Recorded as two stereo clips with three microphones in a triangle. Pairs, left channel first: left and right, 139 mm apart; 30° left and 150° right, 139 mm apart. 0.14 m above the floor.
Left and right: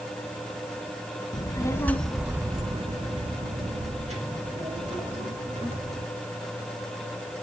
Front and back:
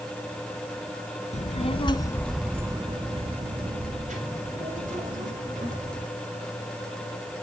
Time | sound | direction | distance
1.3 | a child speaking | 40° left | 1.1 m